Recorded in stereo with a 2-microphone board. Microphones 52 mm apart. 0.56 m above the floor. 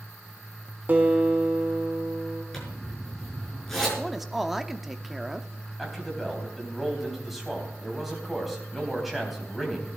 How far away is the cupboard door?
No cupboard door in this recording.